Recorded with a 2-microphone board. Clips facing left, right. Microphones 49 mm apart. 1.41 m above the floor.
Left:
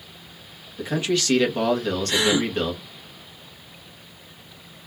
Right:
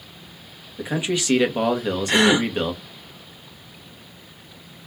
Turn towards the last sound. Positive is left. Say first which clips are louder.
# right 5 dB
turn(degrees=-50)  # may be behind; listen again after turning